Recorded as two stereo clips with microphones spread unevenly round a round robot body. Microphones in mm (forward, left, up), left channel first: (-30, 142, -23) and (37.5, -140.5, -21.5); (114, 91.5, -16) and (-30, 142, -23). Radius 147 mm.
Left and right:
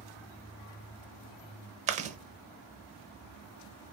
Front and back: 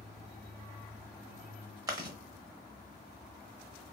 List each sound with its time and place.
1.9 s chewing: 135° right, 0.6 m